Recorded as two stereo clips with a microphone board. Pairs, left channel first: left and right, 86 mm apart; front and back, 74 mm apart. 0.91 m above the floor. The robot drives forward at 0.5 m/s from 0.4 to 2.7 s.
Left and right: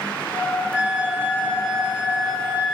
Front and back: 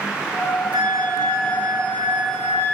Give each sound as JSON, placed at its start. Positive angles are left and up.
{"t": 0.7, "sound": "a flute", "azimuth_deg": -160, "distance_m": 2.0}